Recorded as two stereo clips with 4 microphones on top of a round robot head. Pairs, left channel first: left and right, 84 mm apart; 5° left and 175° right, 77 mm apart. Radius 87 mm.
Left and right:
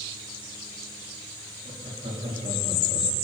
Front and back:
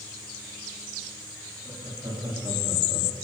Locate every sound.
1.6 s laughter: 115° right, 4 m; by 3.1 s 105° right, 3 m